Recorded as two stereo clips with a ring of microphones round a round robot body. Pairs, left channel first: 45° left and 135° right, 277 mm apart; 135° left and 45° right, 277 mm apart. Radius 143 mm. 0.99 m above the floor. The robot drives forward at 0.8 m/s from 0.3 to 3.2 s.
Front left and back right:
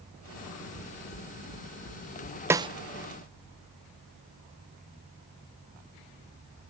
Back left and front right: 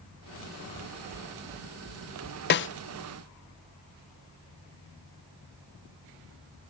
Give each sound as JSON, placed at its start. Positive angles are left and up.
{"t": 0.8, "sound": "knocking", "azimuth_deg": -65, "distance_m": 3.0}
{"t": 2.5, "sound": "a snare drum", "azimuth_deg": 150, "distance_m": 0.5}